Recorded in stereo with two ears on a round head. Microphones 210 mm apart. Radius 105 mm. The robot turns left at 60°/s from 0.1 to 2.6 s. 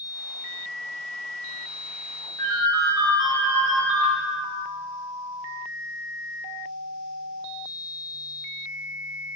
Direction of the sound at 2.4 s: 10° left (ahead or behind).